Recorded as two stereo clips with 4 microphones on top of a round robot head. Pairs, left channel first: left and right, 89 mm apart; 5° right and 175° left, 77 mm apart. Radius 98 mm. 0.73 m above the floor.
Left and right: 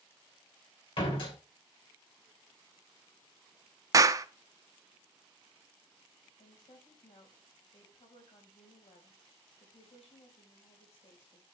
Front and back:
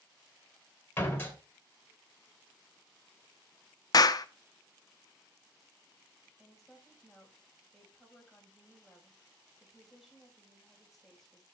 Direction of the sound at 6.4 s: 85° left.